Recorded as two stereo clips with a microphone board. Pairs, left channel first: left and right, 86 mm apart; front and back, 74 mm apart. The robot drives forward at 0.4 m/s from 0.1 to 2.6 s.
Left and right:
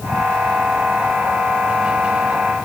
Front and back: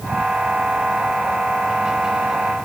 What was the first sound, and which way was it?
Only background noise.